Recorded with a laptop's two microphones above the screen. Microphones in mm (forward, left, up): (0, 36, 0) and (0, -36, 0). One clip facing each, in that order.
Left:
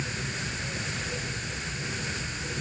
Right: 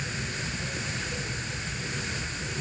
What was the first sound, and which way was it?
Only background noise.